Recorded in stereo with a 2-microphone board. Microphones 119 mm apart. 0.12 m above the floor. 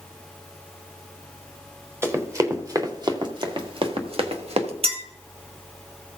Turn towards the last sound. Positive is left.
turn(degrees=-55)  # may be behind; listen again after turning